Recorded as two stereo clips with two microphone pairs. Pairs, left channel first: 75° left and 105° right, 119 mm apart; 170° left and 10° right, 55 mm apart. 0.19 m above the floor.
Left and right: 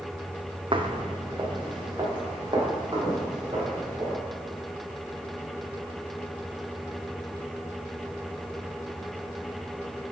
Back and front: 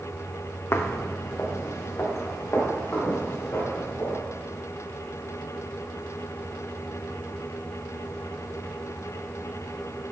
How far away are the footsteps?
About 0.6 m.